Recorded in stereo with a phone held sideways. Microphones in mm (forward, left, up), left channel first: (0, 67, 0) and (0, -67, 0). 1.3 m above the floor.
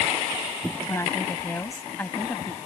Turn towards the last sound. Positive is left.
turn(degrees=10)  # may be behind; listen again after turning